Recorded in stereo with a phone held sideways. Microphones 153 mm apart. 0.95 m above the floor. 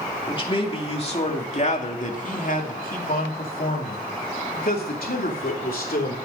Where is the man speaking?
35° left (ahead or behind), 2.5 m; by 6.2 s 70° left (ahead or behind), 3.5 m.